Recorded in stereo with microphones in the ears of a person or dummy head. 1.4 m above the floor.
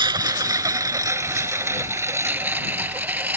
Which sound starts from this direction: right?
A lawn mower, at 0.0 s.